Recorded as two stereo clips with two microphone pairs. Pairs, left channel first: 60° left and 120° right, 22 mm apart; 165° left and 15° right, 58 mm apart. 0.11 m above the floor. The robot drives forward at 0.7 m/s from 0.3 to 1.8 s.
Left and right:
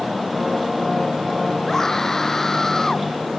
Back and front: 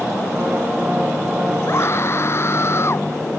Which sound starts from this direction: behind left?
A scream, at 1.7 s.